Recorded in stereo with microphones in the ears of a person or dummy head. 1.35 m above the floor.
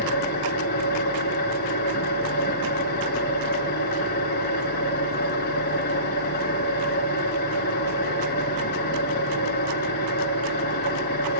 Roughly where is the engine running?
Left.